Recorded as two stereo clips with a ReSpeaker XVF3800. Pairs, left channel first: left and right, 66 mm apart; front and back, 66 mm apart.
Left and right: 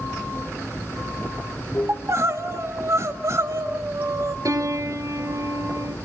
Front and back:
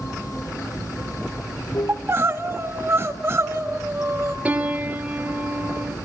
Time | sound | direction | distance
0.0 | running water | 35° left | 8 m
1.9 | crying | 130° right | 2.5 m
4.5 | a piano | 110° right | 2.5 m